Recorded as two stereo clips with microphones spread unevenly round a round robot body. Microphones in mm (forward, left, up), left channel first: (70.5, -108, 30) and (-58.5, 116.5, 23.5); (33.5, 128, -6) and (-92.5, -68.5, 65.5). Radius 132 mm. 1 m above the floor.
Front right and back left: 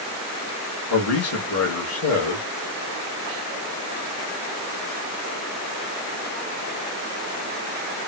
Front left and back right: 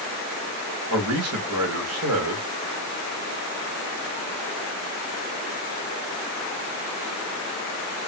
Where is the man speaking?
85° right, 1.5 m.